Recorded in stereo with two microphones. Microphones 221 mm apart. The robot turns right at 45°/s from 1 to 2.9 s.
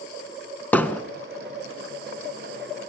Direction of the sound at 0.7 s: 5° left (ahead or behind).